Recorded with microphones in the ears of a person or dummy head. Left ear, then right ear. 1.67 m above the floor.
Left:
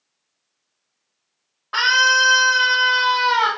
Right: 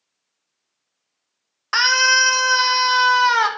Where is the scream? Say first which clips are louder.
Even; 70° right (ahead or behind), 1.9 m.